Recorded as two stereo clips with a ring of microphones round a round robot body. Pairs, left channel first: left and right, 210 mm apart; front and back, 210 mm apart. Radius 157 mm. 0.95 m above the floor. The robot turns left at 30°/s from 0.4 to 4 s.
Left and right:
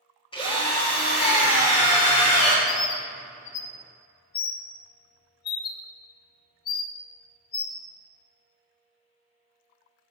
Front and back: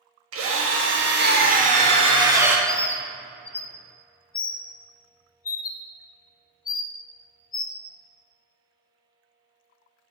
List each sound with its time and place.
0.3 s a drill: 165° left, 1.5 m; by 2.6 s 100° left, 1.5 m
2.7 s a bird: 90° left, 0.7 m; by 7.8 s 45° left, 0.7 m